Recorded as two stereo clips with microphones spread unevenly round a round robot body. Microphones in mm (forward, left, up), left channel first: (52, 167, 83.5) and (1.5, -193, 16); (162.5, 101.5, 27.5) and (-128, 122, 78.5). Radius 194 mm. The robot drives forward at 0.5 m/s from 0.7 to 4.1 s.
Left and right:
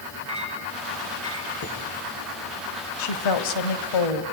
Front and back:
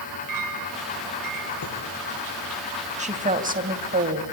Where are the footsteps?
No footsteps in this recording.